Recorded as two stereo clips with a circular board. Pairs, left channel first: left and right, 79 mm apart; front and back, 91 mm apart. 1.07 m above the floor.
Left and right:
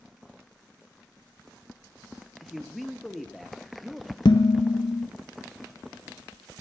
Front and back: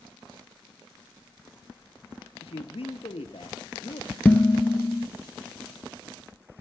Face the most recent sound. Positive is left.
turn(degrees=70)